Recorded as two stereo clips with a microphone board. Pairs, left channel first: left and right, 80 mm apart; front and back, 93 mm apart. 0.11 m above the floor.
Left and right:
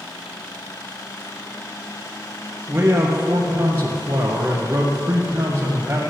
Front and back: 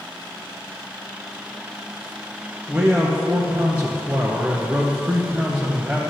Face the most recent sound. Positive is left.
turn(degrees=-125)